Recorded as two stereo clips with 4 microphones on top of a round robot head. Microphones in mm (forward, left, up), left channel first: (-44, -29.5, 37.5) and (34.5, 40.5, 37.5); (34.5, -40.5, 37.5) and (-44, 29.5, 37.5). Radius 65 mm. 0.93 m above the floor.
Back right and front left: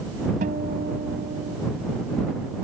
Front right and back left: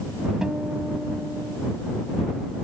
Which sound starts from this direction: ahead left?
A guitar, at 0.4 s.